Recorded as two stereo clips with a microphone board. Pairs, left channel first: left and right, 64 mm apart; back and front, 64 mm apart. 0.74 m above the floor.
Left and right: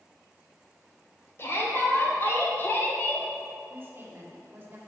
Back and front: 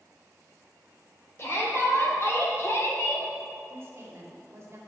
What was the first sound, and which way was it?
A shout, 135° left.